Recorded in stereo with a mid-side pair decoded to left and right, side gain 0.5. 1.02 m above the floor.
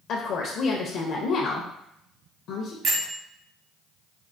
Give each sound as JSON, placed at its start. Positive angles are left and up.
{"t": 0.1, "sound": "a woman speaking", "azimuth_deg": 70, "distance_m": 0.7}
{"t": 2.8, "sound": "a bell", "azimuth_deg": -60, "distance_m": 1.2}